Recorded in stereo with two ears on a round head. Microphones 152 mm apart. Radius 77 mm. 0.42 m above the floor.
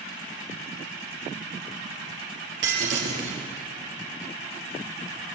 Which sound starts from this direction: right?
Breaking glass, at 2.6 s.